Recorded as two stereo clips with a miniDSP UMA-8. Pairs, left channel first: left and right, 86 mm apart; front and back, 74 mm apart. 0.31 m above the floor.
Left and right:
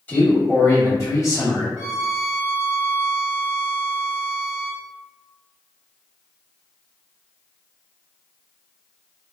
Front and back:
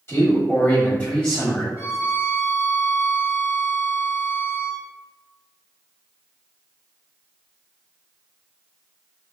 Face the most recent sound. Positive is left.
turn(degrees=-10)